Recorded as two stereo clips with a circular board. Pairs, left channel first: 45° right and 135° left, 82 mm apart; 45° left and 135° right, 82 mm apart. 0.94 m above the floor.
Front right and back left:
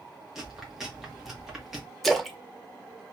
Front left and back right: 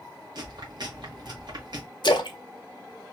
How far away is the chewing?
About 1.1 m.